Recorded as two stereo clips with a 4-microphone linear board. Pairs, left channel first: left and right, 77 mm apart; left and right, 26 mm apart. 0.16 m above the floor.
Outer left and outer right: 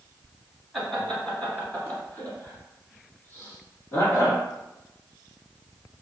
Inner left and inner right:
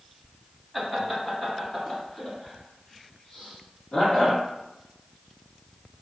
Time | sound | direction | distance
0.7 | laughter | centre (ahead or behind) | 1.6 m